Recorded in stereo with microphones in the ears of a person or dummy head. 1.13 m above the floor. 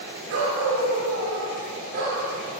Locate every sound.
0.3 s a dog barking: 70° right (ahead or behind), 4.5 m; by 2.2 s 45° right (ahead or behind), 5.5 m